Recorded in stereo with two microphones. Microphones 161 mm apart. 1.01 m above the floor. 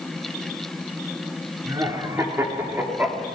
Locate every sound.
1.6 s laughter: 20° right (ahead or behind), 3.5 m; by 3.3 s 10° right (ahead or behind), 3 m